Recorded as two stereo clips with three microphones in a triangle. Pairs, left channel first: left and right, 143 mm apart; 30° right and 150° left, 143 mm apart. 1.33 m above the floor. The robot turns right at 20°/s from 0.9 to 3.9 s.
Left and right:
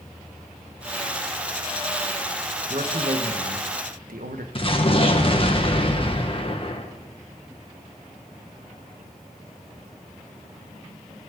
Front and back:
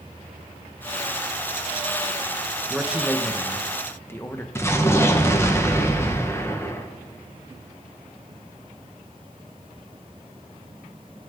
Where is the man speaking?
130° right, 1.2 m; by 4.5 s 105° right, 1.2 m.